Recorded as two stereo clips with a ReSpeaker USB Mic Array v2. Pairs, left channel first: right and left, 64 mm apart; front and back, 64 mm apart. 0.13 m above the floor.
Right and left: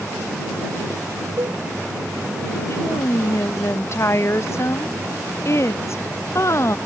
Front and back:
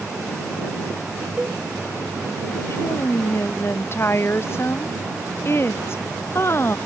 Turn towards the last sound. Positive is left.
turn(degrees=-50)